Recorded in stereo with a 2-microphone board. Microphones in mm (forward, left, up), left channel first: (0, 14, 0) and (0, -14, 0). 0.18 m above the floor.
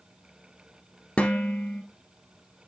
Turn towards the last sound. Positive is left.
turn(degrees=50)  # may be behind; listen again after turning